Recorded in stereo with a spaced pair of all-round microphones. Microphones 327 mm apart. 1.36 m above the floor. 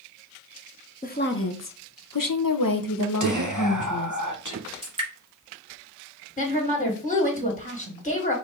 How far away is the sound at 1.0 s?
About 0.7 m.